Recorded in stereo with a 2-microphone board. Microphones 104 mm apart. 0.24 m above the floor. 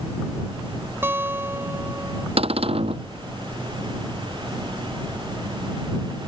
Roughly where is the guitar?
Right.